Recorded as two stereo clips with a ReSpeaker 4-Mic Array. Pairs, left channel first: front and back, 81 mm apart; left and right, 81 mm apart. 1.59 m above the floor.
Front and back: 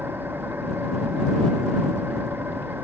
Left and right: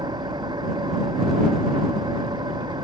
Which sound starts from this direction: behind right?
An engine running, at 0.0 s.